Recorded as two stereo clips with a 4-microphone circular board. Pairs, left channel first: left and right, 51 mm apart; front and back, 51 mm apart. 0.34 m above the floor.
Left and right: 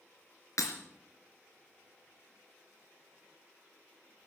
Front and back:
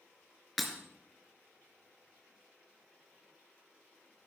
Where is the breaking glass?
90° left, 2.5 m.